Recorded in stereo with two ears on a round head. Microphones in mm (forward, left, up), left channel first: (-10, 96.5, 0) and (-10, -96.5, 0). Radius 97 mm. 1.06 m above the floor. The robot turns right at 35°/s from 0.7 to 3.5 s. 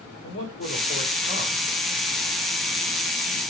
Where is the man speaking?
95° left, 2.5 m; by 1.7 s 135° left, 2.5 m.